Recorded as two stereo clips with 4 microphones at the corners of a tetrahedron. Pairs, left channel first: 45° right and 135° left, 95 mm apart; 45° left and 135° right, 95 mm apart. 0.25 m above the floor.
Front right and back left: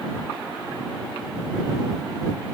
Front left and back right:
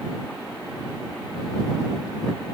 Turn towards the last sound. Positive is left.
No sound to turn to.